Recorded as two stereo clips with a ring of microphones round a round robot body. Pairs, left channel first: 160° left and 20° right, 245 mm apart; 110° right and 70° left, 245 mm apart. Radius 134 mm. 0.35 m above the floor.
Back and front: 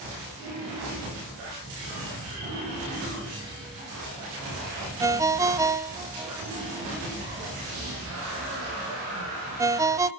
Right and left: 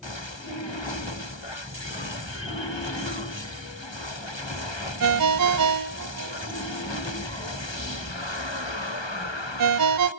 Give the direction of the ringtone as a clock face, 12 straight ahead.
10 o'clock.